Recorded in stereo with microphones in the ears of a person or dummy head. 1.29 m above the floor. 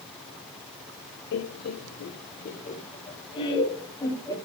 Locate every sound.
1.3 s laughter: 60° left (ahead or behind), 0.7 m; by 4.3 s 20° left (ahead or behind), 2 m